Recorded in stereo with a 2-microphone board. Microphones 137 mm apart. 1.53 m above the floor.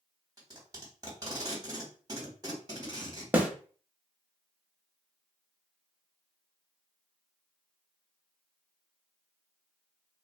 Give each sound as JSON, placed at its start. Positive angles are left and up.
{"t": 0.4, "sound": "tape being pulled", "side_deg": -30, "distance_m": 1.2}
{"t": 3.3, "sound": "a snare drum", "side_deg": -10, "distance_m": 0.5}